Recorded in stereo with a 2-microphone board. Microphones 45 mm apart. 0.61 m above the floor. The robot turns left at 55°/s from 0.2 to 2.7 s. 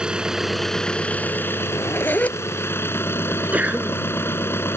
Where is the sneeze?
35° right (ahead or behind).